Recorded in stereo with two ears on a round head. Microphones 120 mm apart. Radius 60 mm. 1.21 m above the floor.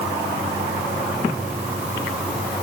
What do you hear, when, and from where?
Only background noise.